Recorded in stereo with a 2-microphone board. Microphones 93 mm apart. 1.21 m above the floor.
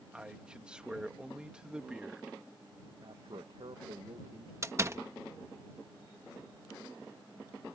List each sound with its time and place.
0.1 s a man speaking: 10° right (ahead or behind)
3.0 s a man speaking: 70° right (ahead or behind)
4.6 s a door slam: 30° right (ahead or behind)